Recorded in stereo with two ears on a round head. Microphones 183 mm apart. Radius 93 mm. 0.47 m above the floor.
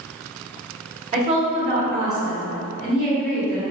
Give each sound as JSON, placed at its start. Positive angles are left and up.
{"t": 1.1, "sound": "a woman speaking", "side_deg": -35, "distance_m": 1.6}